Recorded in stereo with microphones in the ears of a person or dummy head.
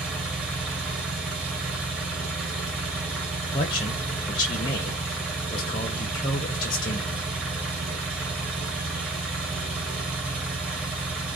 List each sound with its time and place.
0.0 s an engine running: 10° right (ahead or behind), 0.7 m
3.5 s a man speaking: 30° left (ahead or behind), 0.6 m